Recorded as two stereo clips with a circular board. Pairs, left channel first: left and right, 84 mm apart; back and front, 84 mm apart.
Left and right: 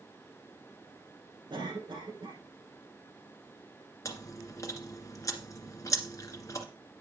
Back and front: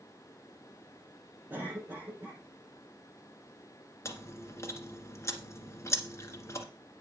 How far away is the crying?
No crying in this recording.